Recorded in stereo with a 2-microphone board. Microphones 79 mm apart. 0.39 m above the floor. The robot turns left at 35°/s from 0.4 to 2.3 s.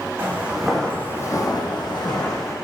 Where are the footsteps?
20° right (ahead or behind), 1.0 m; by 2.5 s 45° left (ahead or behind), 1.0 m.